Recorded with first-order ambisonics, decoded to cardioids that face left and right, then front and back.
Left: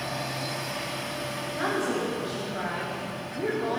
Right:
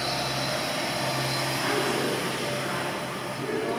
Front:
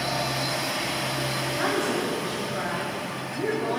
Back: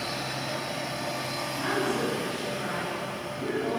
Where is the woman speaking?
35° left, 3 m; by 3.8 s 40° left, 4 m.